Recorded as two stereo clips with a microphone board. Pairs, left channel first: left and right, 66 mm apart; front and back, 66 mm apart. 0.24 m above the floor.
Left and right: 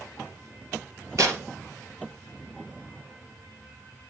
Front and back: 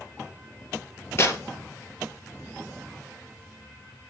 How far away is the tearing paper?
About 2.5 m.